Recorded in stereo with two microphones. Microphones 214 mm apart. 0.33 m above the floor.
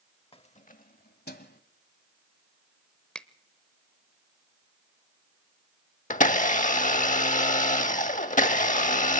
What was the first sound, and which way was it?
Keys jangling, 25° left (ahead or behind).